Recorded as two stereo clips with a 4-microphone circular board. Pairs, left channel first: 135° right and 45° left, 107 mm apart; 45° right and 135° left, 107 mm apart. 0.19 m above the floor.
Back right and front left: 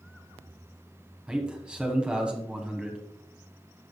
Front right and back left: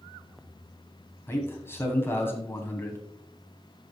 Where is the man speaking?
20° right, 1.3 m.